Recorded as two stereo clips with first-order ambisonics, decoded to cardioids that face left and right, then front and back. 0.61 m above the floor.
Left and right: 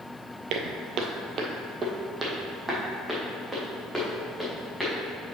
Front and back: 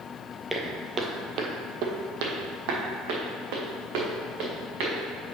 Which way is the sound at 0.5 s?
85° right.